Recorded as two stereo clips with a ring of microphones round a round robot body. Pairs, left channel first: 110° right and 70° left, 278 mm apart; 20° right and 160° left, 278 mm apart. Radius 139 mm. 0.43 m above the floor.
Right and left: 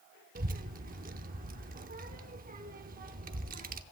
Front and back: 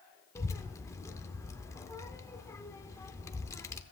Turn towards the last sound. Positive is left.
turn(degrees=50)